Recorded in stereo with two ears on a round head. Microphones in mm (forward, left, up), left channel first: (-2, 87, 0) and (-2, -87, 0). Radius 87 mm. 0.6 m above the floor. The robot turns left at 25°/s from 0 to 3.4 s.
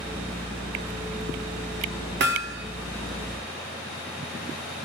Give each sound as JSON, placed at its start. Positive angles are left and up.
{"t": 2.2, "sound": "hammering", "side_deg": -60, "distance_m": 1.3}